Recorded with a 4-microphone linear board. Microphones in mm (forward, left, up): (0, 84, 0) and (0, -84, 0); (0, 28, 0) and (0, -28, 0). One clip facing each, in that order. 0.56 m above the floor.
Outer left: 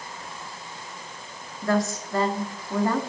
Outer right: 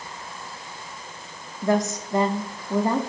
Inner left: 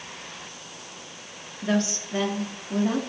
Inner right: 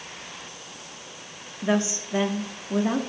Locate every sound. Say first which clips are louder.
1.6 s a woman speaking: outer right 2 dB, inner right 1 dB; 20° right (ahead or behind), 0.6 m